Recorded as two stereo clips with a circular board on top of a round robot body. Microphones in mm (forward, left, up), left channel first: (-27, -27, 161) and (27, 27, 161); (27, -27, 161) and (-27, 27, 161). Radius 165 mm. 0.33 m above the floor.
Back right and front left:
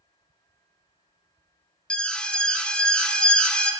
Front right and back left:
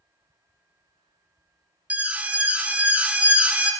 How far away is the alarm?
About 1.0 m.